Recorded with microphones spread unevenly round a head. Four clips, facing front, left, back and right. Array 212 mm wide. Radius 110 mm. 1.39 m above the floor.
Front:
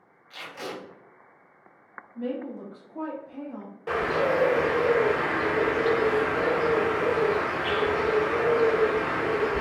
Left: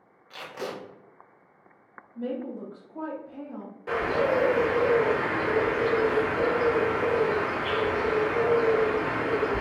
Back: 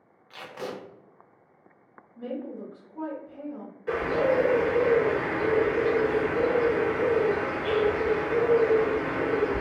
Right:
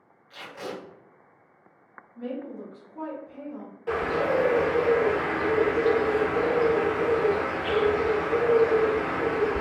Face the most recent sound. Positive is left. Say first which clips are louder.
# even, even
turn(degrees=5)